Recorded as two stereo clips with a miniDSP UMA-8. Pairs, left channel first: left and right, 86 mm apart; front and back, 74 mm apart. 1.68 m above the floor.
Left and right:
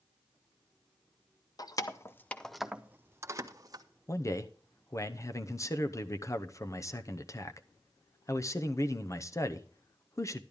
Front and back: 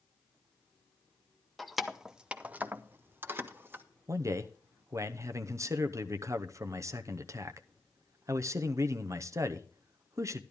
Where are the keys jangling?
90° left, 0.7 m; by 3.8 s 125° right, 1.0 m.